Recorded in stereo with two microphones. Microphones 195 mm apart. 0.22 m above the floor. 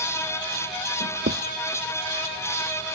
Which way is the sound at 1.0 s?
80° right.